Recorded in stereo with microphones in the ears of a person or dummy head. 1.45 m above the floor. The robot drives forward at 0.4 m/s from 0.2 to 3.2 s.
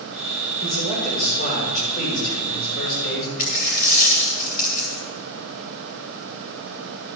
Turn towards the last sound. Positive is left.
turn(degrees=45)  # may be behind; listen again after turning